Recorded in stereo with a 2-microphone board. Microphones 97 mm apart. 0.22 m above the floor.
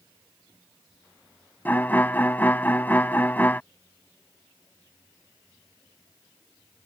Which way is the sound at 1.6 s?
20° left (ahead or behind).